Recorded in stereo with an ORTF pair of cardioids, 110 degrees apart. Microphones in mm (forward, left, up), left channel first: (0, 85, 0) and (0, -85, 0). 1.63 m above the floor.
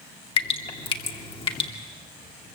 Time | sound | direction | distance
0.4 | dripping | 30° left | 2.5 m